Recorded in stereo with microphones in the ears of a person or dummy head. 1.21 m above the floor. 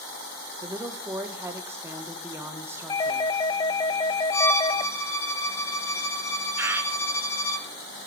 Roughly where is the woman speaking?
Centre.